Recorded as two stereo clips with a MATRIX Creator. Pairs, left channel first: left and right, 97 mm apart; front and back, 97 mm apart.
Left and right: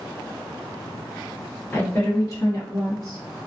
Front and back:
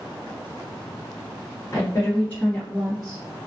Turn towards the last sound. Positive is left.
turn(degrees=100)